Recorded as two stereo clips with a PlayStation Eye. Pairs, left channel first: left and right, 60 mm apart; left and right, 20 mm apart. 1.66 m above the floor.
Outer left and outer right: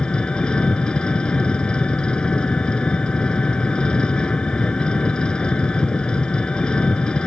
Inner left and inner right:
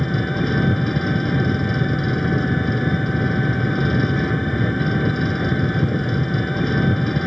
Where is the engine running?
15° left (ahead or behind).